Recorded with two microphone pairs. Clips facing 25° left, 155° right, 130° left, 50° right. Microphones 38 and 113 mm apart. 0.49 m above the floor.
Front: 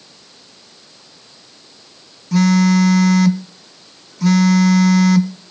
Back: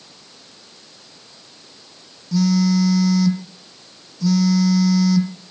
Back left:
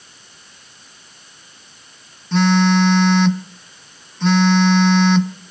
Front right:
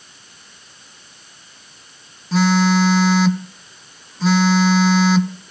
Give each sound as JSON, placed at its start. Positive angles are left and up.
{"t": 2.3, "sound": "a phone buzzing", "azimuth_deg": 40, "distance_m": 0.8}